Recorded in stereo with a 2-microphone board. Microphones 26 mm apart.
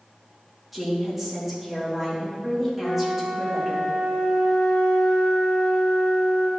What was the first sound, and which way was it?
A woman speaking, 5° right (ahead or behind).